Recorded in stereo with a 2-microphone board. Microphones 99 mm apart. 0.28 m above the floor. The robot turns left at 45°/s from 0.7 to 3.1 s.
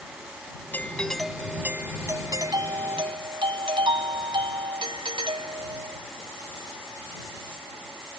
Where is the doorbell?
25° left; by 6.0 s 85° right.